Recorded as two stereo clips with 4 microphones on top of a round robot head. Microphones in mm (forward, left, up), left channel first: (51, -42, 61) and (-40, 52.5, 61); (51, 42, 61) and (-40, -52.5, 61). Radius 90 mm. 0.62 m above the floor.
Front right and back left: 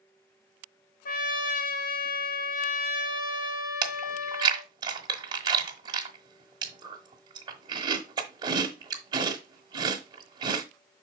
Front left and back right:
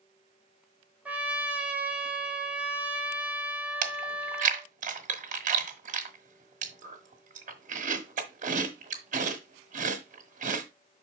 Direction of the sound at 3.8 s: 165° right.